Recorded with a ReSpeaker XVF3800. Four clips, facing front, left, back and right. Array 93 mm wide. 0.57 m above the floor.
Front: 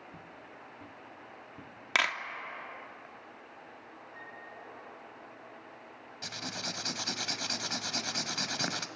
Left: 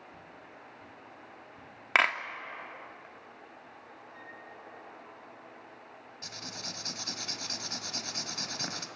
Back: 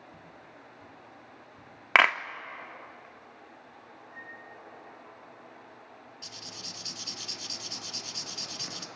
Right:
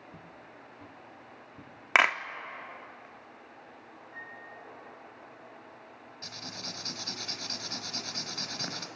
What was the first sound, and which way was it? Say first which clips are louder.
Footsteps: even, front 1 dB; 55° right.